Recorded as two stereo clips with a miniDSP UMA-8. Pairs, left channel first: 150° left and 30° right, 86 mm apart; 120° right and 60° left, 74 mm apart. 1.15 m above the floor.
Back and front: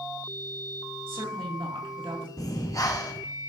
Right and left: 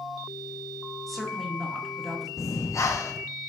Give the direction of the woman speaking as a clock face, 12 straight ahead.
1 o'clock.